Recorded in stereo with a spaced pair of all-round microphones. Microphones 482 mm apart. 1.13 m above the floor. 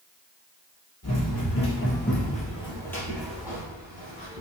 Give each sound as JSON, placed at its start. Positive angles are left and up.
{"t": 1.0, "sound": "running footsteps", "side_deg": 35, "distance_m": 1.4}